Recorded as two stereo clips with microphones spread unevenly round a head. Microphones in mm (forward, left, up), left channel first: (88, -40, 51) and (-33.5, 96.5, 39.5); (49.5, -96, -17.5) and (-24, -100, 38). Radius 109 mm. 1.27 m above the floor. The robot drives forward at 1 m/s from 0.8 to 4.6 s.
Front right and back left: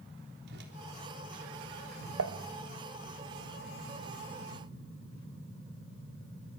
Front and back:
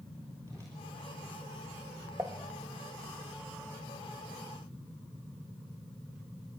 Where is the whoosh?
105° left, 3.5 m.